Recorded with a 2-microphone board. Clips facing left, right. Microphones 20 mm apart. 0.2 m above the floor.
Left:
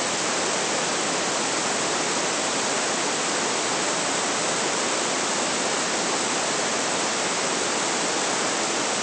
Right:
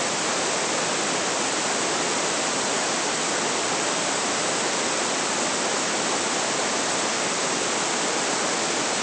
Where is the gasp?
No gasp in this recording.